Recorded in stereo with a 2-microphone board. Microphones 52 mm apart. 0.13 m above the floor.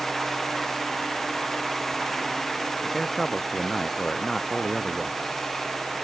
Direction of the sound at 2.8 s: 5° left (ahead or behind).